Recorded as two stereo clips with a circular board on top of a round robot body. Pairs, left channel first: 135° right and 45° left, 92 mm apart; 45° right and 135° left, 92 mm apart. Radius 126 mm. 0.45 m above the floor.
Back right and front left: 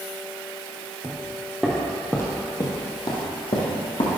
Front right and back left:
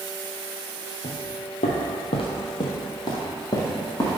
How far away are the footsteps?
About 1.0 m.